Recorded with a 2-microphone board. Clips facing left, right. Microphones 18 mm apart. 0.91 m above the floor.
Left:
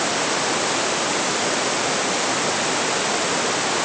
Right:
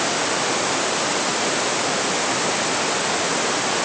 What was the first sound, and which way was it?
Only background noise.